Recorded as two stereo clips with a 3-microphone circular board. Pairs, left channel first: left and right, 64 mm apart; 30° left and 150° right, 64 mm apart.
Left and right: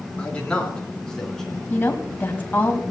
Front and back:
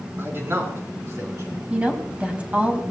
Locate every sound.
0.2 s a man speaking: 160° left, 4 m; by 1.6 s 175° left, 4.5 m
1.7 s a woman speaking: 145° left, 2 m